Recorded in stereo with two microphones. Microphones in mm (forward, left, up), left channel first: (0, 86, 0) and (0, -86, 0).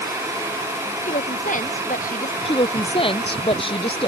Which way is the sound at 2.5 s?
30° left (ahead or behind).